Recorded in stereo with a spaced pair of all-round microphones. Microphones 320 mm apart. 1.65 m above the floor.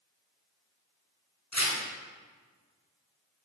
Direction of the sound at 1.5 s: 60° left (ahead or behind).